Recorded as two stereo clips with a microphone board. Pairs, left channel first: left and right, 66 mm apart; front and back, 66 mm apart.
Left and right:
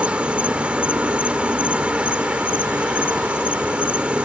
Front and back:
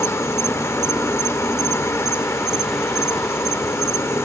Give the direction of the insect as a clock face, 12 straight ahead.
1 o'clock.